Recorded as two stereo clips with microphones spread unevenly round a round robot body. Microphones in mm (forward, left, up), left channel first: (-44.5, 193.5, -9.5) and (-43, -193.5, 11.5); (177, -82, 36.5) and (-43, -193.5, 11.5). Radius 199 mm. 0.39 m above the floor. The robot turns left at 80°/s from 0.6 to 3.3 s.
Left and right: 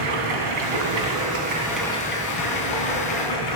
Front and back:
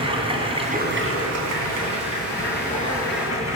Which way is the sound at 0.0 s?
85° right.